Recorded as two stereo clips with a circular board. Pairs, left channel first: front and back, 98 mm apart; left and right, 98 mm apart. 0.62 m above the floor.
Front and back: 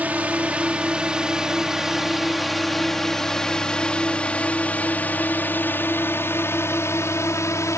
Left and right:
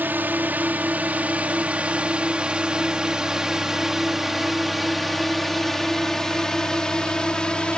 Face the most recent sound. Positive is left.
turn(degrees=20)